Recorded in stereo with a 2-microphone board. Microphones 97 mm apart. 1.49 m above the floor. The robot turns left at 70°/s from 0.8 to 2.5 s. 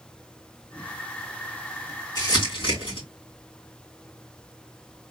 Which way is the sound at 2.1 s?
40° left (ahead or behind).